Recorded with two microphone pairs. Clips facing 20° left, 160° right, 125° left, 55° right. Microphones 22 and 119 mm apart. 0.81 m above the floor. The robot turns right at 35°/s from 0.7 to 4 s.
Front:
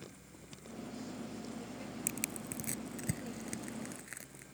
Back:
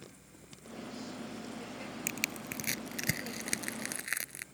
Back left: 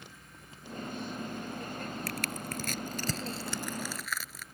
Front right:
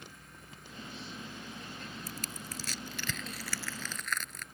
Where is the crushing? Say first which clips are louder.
Back 6 dB, back left 7 dB; 140° left; by 4.5 s 150° right.